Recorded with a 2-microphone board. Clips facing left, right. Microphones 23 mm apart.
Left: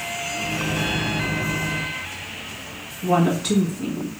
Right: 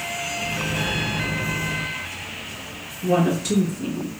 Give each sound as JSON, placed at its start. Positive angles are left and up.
{"t": 0.3, "sound": "a microwave", "side_deg": 60, "distance_m": 1.6}
{"t": 3.0, "sound": "a woman speaking", "side_deg": 50, "distance_m": 1.9}